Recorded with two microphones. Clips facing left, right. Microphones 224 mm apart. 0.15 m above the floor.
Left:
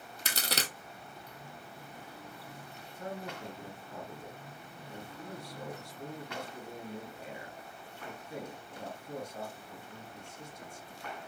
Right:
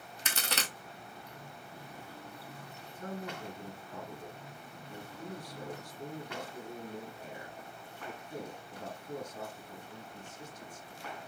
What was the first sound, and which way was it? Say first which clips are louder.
A crack: left 2 dB; 35° left (ahead or behind).